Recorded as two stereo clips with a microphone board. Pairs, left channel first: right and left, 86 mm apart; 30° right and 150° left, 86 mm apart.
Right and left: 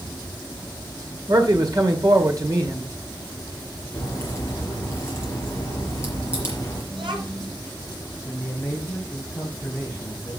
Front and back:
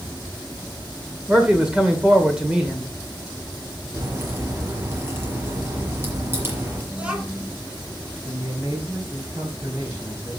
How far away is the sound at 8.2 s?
About 3 m.